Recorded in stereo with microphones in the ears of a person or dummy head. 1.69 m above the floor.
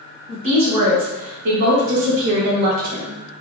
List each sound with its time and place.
0.3 s a woman speaking: 30° right (ahead or behind), 1.5 m; by 3.2 s 40° right (ahead or behind), 0.9 m